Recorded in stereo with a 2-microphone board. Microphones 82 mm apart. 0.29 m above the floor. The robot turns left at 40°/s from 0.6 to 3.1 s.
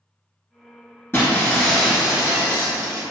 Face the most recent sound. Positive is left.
turn(degrees=-50)